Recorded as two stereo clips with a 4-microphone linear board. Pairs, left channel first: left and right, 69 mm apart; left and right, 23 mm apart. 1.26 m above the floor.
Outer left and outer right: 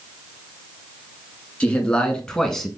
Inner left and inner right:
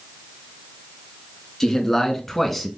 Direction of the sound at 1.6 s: 20° left (ahead or behind).